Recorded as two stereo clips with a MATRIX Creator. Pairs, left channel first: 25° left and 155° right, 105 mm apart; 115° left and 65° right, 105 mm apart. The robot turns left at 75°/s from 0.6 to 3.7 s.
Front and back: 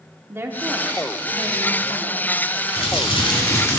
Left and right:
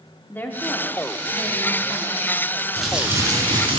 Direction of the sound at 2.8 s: 25° left.